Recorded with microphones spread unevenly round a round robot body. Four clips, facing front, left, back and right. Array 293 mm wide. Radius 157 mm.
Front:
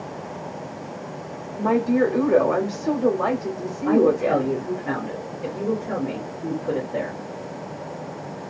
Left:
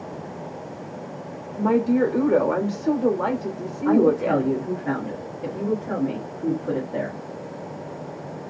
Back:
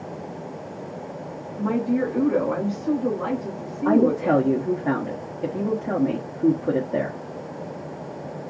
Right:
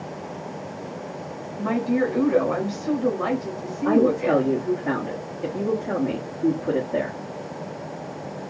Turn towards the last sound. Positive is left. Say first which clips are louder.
# left 1 dB, even
turn(degrees=-155)